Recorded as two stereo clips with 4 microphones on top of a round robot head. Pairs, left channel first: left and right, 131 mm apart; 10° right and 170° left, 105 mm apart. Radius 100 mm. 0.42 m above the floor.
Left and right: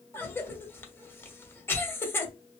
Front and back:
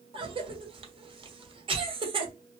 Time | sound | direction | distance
0.1 | a cough | 160° left | 1.2 m